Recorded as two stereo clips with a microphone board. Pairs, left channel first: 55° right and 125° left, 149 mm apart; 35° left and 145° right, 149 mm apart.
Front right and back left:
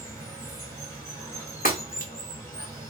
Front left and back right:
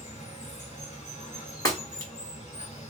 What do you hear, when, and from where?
0.0 s running water: 15° left, 1.6 m
1.6 s breaking glass: 35° right, 1.3 m